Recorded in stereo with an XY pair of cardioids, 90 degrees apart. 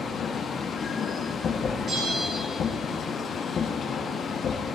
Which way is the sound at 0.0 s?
60° left.